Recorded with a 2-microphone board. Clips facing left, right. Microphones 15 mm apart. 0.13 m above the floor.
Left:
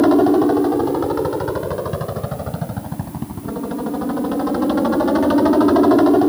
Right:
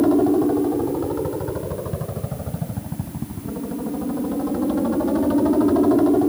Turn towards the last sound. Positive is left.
turn(degrees=45)  # may be behind; listen again after turning